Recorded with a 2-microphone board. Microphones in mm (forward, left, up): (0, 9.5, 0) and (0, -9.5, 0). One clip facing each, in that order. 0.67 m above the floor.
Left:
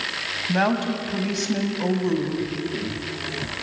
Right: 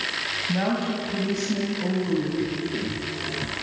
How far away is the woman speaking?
About 4 m.